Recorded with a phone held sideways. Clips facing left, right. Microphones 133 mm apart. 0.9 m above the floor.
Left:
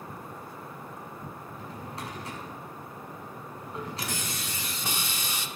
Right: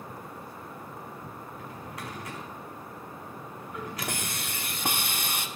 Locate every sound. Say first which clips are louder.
1.5 s a drawer: left 1 dB; 30° left (ahead or behind), 4.5 m
4.0 s a hiss: right 1 dB; 55° right (ahead or behind), 1.0 m